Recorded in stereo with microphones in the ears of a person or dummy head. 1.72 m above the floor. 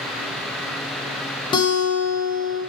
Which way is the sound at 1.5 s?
25° left (ahead or behind).